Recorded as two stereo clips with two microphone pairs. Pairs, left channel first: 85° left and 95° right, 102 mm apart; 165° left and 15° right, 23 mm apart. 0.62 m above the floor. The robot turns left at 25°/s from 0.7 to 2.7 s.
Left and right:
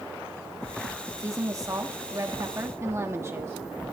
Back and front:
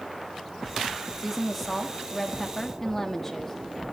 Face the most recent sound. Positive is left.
turn(degrees=-125)